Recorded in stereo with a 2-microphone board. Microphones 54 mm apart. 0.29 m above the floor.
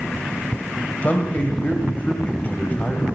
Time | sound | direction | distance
1.0 | a man speaking | 30° left (ahead or behind) | 1.4 m